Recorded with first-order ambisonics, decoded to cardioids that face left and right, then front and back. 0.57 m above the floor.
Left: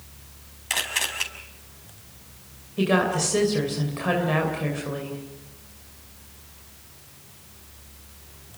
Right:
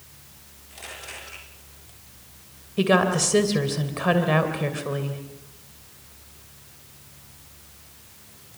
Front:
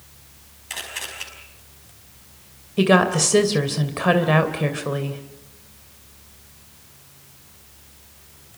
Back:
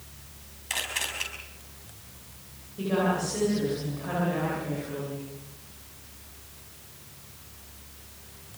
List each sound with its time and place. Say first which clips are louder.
0.7 s a camera shutter: left 13 dB, back 1 dB; 95° left, 5.5 m
2.8 s a woman speaking: right 2 dB, front 10 dB; 15° right, 3 m